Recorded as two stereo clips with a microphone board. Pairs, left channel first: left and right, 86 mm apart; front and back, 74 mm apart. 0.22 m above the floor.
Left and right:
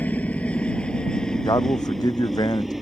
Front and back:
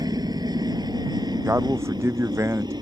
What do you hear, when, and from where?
0.0 s a helicopter: 160° left; by 2.8 s 175° right
1.4 s a man speaking: 130° left